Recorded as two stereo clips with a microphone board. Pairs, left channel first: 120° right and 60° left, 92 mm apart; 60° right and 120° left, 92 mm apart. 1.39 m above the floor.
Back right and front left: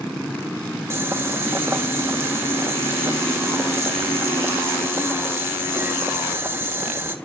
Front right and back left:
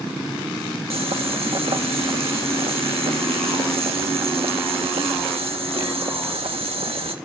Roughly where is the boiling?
Behind left.